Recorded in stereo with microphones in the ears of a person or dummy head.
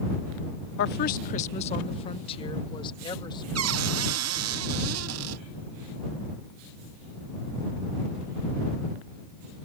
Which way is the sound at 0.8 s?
65° left (ahead or behind).